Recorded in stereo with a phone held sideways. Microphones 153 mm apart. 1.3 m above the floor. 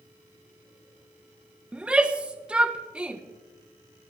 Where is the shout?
10° right (ahead or behind), 1.2 m.